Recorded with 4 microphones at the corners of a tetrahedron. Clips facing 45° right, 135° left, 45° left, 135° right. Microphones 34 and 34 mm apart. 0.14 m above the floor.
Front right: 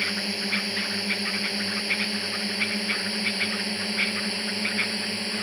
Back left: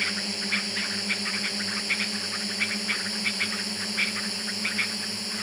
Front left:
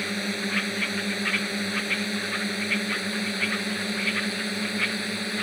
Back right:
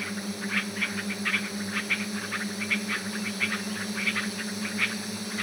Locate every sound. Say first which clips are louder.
0.0 s a drone: front right 1 dB, front left 5 dB; 25° left; by 5.4 s 10° left